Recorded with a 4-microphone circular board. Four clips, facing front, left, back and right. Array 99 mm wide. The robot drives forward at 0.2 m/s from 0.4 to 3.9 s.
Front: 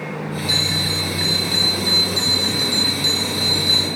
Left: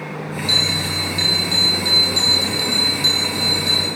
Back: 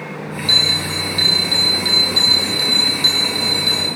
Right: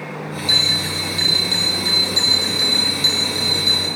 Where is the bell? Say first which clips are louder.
Left 1 dB, back 1 dB; 120° right, 3.5 m; by 3.9 s 130° right, 4 m.